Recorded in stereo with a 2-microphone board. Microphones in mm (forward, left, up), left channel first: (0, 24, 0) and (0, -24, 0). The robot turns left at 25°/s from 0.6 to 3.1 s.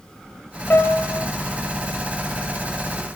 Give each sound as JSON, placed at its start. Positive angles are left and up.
{"t": 0.7, "sound": "a piano", "side_deg": 50, "distance_m": 2.5}